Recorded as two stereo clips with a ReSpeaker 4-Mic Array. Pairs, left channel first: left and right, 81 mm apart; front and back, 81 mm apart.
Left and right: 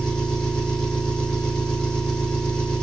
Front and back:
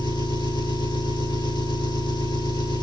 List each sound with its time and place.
0.0 s an engine running: 10° left, 7 m